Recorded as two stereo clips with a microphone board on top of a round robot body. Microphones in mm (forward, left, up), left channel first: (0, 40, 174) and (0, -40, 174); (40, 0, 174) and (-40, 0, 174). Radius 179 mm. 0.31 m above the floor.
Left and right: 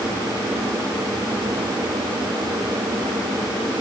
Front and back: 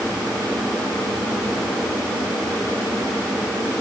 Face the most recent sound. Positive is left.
No sound to turn to.